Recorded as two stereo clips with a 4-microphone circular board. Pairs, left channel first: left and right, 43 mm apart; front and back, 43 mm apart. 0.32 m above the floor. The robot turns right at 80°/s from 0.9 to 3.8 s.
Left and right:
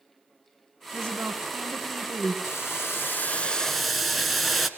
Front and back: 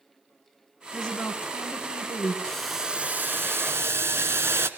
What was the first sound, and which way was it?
A woman speaking, 80° right.